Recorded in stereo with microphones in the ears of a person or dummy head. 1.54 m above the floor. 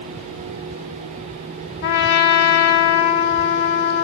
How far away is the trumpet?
About 1.4 m.